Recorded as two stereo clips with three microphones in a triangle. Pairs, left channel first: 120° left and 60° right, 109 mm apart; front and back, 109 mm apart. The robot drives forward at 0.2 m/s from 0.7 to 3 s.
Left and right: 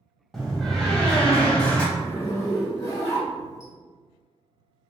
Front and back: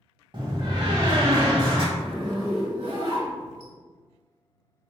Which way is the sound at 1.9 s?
170° left.